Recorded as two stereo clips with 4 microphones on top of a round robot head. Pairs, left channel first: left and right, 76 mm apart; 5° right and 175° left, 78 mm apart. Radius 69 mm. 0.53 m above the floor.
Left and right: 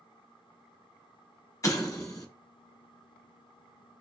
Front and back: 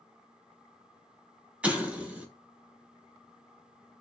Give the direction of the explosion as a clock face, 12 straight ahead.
8 o'clock.